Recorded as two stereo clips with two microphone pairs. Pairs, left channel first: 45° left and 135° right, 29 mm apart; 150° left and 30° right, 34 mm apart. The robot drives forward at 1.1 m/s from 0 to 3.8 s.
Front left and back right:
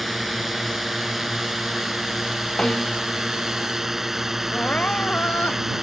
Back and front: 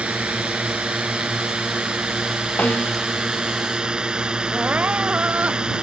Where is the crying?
10° left.